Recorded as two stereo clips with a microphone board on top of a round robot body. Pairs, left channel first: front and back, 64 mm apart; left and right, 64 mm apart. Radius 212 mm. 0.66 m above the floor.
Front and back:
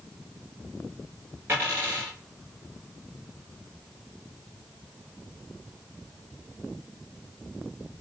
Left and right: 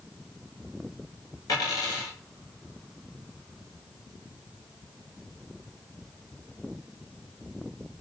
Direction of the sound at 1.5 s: 120° left.